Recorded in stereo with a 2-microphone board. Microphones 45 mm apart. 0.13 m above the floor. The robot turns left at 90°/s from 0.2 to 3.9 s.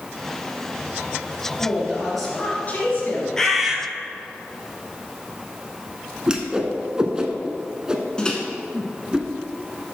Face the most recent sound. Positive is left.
turn(degrees=20)  # may be behind; listen again after turning